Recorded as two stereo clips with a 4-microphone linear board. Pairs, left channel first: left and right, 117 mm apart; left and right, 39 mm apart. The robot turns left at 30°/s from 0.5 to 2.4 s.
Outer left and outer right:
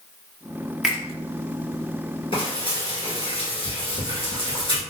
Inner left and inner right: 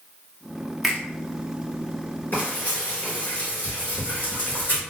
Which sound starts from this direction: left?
Frying, at 2.3 s.